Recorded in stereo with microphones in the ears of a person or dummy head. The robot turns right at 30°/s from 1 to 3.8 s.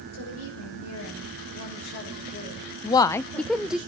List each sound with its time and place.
0.1 s a woman speaking: 90° left, 6 m; by 3.8 s 175° left, 6 m
2.8 s a woman speaking: 20° left (ahead or behind), 0.5 m; by 3.8 s 5° right (ahead or behind), 0.5 m